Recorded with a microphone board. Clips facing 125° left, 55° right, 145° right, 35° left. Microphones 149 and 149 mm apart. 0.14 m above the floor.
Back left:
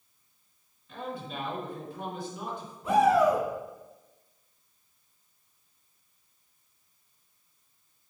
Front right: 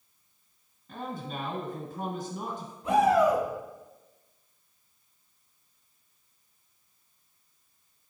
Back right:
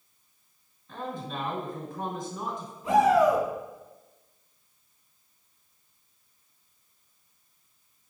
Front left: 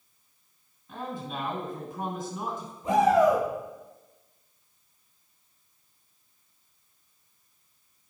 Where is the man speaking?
50° right, 1.5 m.